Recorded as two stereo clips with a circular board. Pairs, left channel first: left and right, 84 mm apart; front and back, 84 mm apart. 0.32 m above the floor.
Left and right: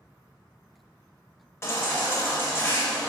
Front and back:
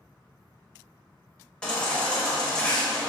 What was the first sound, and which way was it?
A baby crying, 70° left.